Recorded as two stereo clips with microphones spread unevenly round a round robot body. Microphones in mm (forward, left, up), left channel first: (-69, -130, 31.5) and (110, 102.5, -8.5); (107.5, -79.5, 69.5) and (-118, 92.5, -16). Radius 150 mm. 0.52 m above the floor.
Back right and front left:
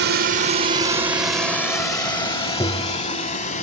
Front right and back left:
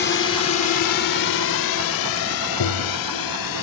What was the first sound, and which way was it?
A drone, 20° left.